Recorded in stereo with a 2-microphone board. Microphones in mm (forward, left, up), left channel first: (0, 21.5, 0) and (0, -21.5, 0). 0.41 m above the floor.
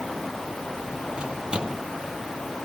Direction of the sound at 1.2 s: 20° right (ahead or behind).